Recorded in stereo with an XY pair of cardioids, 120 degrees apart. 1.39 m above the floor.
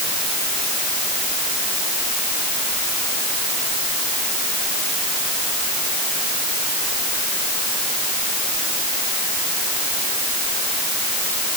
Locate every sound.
Only background noise.